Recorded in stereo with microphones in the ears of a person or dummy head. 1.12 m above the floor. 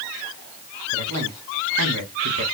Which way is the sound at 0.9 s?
85° right.